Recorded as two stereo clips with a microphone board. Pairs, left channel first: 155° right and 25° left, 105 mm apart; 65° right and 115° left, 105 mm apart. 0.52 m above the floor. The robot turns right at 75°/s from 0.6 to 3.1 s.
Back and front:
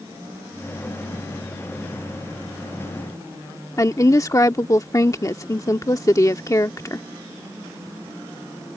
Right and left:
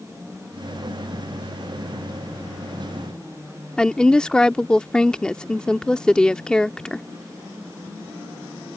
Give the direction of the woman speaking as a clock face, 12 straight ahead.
5 o'clock.